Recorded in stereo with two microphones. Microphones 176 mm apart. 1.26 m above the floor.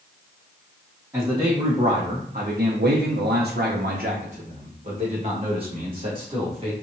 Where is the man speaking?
20° right (ahead or behind), 1.1 m; by 6.7 s 30° right (ahead or behind), 2 m.